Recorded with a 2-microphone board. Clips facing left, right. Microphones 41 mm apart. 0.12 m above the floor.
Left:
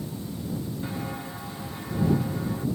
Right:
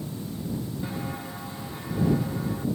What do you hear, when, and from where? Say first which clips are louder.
0.8 s footsteps: even; centre (ahead or behind)